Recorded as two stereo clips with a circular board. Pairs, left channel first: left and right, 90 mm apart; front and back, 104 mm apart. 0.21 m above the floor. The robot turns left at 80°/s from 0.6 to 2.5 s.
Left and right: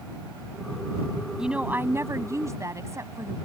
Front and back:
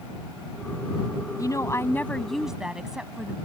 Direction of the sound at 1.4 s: 10° right.